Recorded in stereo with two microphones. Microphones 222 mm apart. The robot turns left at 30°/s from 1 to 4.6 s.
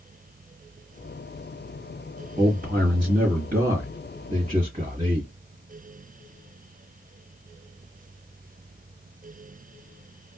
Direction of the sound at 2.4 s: 55° right.